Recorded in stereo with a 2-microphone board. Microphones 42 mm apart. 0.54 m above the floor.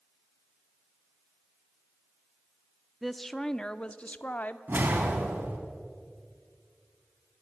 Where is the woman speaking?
5° right (ahead or behind), 0.8 m; by 4.6 s 40° left (ahead or behind), 1.1 m.